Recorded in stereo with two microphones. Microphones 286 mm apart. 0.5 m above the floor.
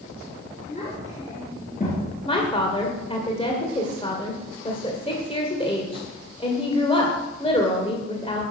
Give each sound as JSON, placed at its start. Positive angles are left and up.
{"t": 0.7, "sound": "a child speaking", "side_deg": 20, "distance_m": 4.5}
{"t": 2.2, "sound": "a woman speaking", "side_deg": 20, "distance_m": 2.0}